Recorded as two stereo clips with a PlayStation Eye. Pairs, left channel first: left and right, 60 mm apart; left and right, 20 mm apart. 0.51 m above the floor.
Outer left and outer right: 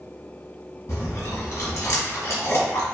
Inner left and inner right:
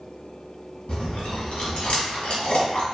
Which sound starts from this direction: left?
Chewing, at 0.9 s.